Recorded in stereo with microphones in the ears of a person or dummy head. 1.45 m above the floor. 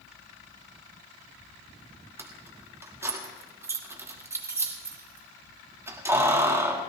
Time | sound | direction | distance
2.2 | keys jangling | 15° right (ahead or behind) | 1.5 m